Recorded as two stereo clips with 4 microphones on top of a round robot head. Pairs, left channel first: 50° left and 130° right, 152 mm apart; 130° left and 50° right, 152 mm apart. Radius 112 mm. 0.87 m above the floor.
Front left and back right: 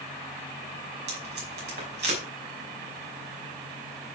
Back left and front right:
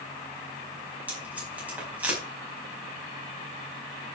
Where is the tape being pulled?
130° right, 5.5 m.